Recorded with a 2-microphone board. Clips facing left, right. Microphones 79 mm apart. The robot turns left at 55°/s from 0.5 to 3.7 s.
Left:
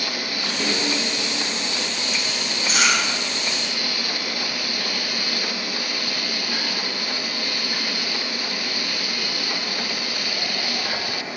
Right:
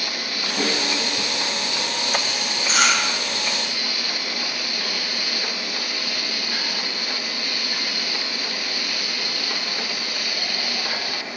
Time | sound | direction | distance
0.6 | a snare drum | 65° right (ahead or behind) | 5.5 m
2.7 | chewing | 40° right (ahead or behind) | 4.5 m